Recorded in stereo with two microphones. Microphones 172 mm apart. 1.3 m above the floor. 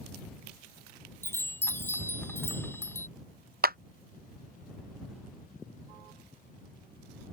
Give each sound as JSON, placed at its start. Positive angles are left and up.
{"t": 1.2, "sound": "a chime", "side_deg": 15}
{"t": 3.6, "sound": "a clap", "side_deg": -60}